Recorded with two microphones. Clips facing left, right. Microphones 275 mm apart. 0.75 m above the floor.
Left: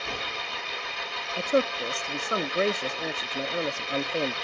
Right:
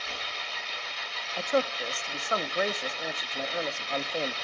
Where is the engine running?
60° left (ahead or behind), 0.8 m.